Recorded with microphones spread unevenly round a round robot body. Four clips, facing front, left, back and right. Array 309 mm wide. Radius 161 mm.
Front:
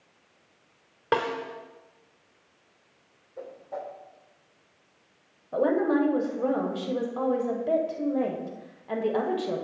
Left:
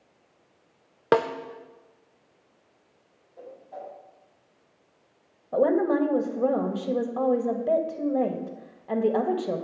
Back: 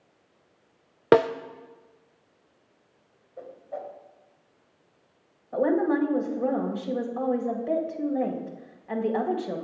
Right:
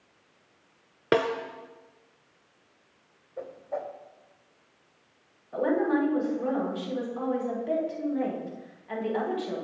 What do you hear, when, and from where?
1.1 s a snare drum: straight behind, 0.5 m
3.4 s a whoosh: 65° right, 2.5 m
5.5 s a woman speaking: 65° left, 2.5 m